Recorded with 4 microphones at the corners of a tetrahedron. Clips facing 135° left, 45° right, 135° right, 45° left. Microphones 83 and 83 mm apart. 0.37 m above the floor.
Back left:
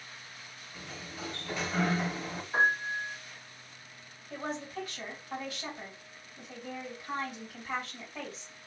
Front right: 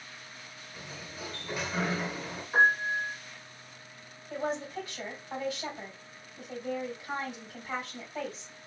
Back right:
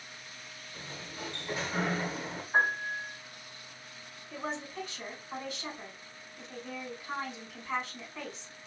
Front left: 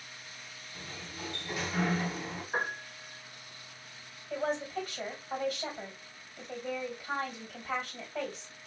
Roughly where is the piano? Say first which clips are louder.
Front right 4 dB, back right 8 dB; ahead.